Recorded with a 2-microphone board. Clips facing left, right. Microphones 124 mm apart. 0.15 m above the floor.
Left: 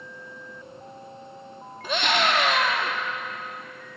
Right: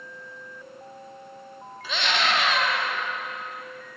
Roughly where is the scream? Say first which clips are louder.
Left 3 dB; left.